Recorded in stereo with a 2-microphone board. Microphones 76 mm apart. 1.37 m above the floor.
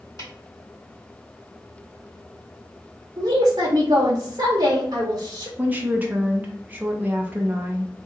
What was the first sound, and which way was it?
A snare drum, 45° left (ahead or behind).